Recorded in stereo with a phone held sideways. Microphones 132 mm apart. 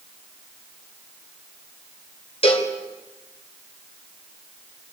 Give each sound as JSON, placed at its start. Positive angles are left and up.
{"t": 2.4, "sound": "a cowbell", "side_deg": 45, "distance_m": 3.0}